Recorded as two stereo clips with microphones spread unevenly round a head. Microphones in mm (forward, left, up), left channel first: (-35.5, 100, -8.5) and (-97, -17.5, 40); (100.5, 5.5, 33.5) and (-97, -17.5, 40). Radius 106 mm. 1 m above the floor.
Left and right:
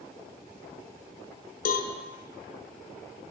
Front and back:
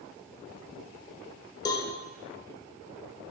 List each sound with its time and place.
1.6 s a cowbell: 80° left, 1.1 m